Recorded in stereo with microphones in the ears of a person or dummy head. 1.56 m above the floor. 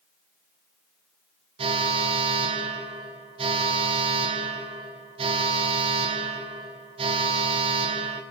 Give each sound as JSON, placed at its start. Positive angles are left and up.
{"t": 1.6, "sound": "an alarm", "side_deg": -30, "distance_m": 2.0}